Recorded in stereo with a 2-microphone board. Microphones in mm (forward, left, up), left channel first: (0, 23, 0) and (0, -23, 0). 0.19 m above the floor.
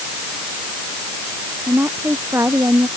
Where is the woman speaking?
60° right (ahead or behind).